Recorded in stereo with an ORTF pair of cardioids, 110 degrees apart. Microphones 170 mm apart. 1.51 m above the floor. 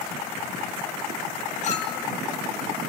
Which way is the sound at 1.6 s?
45° left.